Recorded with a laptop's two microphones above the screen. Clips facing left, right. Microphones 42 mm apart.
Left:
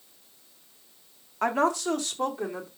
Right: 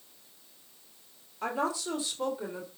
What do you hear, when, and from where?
1.4 s a woman speaking: 70° left (ahead or behind), 2 m